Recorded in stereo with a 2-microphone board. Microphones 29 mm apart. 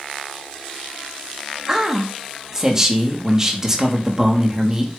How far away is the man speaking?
About 1.6 m.